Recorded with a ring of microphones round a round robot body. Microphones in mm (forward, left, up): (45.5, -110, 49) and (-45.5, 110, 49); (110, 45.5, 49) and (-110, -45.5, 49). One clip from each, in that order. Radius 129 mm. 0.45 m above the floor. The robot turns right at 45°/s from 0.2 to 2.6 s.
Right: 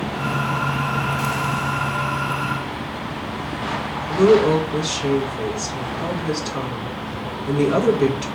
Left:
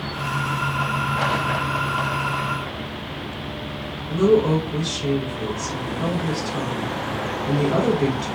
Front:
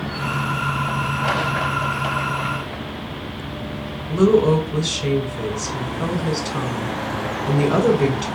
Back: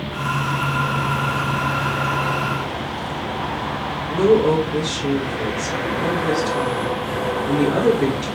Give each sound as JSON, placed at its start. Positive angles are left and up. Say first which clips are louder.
{"t": 4.1, "sound": "a woman speaking", "louder": "right 3 dB, even", "azimuth_deg": 0, "distance_m": 2.0}